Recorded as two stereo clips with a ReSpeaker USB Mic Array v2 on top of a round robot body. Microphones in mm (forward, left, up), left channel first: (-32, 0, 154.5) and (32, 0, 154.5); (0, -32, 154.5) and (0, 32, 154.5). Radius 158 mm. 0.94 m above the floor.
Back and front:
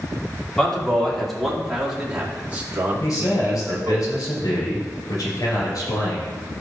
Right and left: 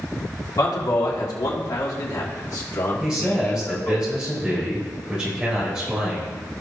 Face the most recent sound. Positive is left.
turn(degrees=165)